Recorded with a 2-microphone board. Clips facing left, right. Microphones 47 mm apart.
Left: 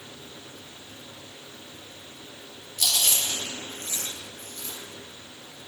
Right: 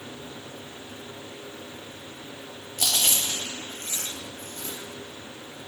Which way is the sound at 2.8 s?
45° right (ahead or behind).